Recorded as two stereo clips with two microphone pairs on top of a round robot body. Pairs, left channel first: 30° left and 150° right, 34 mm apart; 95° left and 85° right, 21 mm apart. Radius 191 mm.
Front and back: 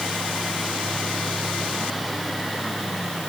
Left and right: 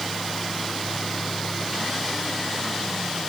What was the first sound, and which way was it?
Only background noise.